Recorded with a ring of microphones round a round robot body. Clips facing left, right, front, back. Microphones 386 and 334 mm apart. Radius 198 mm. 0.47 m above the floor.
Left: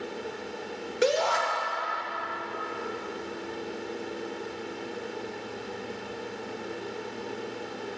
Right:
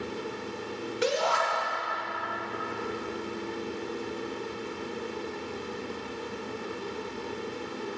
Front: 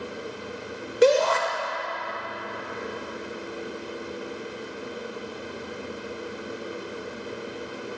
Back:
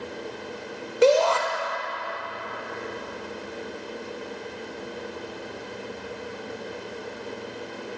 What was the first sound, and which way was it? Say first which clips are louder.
A shout: left 4 dB, even; 65° left.